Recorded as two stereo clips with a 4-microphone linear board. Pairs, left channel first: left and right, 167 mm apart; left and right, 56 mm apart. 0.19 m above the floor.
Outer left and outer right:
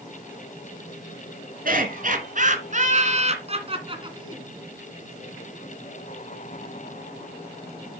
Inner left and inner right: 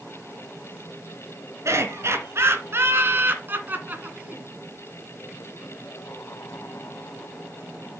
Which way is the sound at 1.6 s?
55° right (ahead or behind).